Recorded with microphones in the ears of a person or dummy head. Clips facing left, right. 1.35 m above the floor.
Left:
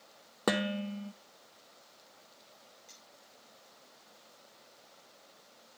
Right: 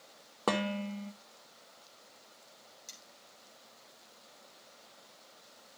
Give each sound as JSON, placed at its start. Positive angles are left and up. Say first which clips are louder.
{"t": 0.5, "sound": "dishes clattering", "louder": "left 1 dB", "side_deg": 20, "distance_m": 0.7}
{"t": 2.9, "sound": "cutlery clinking", "louder": "right 1 dB", "side_deg": -65, "distance_m": 4.0}